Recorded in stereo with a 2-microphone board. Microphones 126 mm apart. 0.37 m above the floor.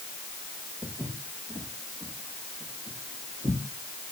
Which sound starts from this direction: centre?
Footsteps, at 0.8 s.